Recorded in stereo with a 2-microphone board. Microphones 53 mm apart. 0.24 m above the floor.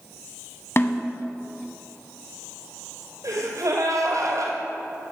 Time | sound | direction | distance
0.8 | a snare drum | 50° left (ahead or behind) | 1.1 m
3.2 | a gasp | 85° right | 2 m